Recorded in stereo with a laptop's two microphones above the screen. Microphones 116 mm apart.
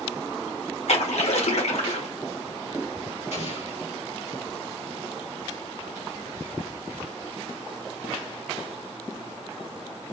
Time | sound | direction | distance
0.9 | a splash | 70° left (ahead or behind) | 1.9 m
3.3 | an explosion | 70° left (ahead or behind) | 2.5 m